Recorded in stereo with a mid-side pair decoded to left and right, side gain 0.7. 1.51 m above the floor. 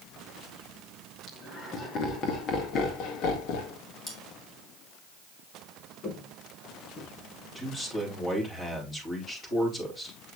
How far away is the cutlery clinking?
About 3.5 m.